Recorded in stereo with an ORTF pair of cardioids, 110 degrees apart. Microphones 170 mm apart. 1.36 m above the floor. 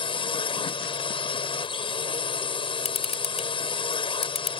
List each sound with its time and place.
0.0 s a drone: 30° left
2.9 s a camera shutter: 40° left